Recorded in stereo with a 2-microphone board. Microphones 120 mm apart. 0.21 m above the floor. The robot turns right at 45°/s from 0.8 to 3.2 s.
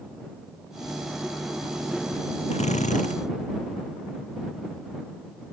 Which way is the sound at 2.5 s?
65° left (ahead or behind).